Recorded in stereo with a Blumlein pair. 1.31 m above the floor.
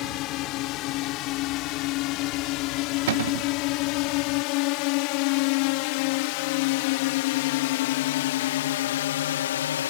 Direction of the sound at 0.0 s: 35° left.